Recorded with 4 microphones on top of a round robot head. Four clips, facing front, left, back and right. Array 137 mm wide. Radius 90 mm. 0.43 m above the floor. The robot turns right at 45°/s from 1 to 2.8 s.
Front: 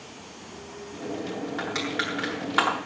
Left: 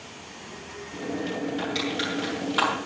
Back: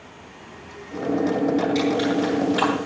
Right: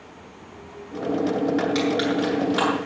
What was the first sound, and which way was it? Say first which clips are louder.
Crushing: right 7 dB, back 9 dB; 35° right.